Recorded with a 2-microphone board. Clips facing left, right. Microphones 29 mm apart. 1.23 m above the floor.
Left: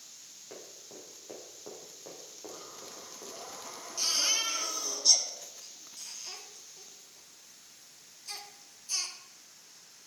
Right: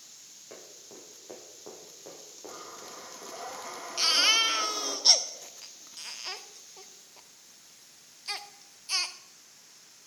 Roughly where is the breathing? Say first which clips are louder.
Right 5 dB; right.